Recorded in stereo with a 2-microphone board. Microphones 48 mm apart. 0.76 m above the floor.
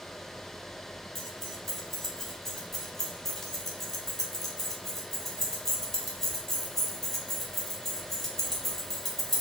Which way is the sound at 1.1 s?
5° left (ahead or behind).